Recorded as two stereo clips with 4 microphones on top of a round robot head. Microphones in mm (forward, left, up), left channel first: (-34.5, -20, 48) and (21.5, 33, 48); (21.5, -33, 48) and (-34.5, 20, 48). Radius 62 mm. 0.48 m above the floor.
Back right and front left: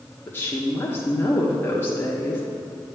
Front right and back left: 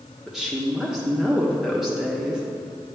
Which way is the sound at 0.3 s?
145° right.